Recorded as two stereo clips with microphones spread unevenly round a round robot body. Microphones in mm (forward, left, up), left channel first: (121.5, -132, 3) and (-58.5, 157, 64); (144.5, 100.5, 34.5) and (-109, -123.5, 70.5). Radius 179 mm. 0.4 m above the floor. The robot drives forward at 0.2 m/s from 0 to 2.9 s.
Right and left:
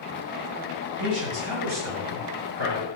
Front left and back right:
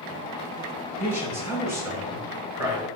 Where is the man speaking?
135° left, 7 m; by 2.9 s 140° left, 7.5 m.